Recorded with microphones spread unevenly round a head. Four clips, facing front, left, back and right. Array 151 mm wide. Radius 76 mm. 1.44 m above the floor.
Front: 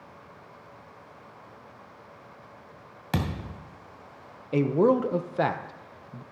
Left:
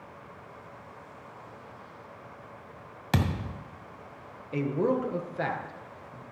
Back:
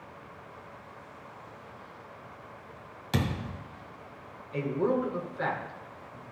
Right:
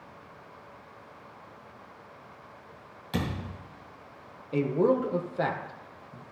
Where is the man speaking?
15° right, 1.0 m.